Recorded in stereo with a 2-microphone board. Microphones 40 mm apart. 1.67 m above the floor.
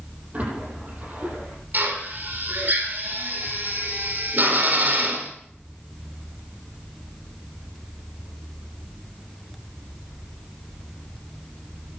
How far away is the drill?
About 4.5 m.